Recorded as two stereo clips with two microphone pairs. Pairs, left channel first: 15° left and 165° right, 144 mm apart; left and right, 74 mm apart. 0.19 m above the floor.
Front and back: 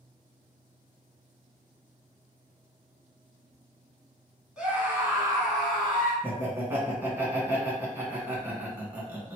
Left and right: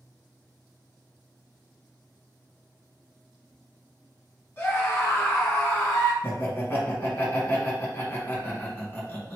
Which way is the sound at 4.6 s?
115° left.